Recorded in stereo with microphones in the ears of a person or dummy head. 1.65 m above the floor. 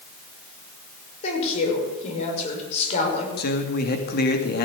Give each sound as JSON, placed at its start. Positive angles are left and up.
{"t": 1.2, "sound": "a woman speaking", "side_deg": 40, "distance_m": 5.5}
{"t": 3.4, "sound": "a man speaking", "side_deg": 50, "distance_m": 2.5}